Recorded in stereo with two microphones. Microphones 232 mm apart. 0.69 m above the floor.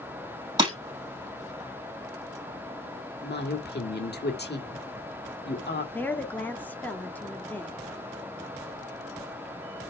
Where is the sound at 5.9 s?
5° left (ahead or behind), 1.3 m.